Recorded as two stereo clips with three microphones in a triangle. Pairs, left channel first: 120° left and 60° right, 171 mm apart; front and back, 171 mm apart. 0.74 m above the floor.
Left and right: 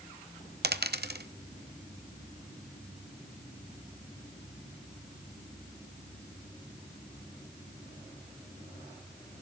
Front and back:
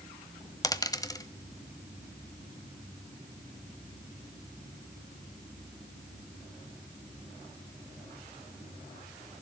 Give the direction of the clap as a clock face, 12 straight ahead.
I don't hear a clap.